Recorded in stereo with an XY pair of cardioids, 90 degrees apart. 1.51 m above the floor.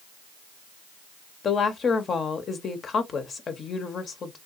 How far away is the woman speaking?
About 0.6 m.